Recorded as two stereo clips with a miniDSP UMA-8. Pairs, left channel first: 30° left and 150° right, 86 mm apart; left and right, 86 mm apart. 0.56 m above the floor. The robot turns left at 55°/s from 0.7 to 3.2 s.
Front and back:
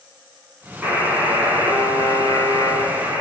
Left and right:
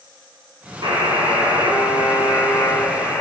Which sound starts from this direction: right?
A buzzer, at 0.8 s.